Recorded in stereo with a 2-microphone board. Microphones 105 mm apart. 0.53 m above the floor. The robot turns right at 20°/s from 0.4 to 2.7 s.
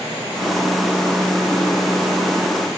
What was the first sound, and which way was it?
Only background noise.